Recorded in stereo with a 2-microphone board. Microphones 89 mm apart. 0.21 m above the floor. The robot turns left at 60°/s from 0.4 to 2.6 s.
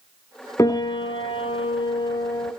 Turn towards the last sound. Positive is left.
turn(degrees=20)